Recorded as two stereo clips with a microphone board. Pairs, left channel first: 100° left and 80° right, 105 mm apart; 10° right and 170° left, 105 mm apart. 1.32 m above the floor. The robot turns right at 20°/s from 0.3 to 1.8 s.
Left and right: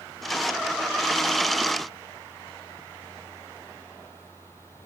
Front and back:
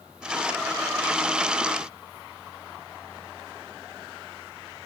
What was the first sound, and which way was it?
Only background noise.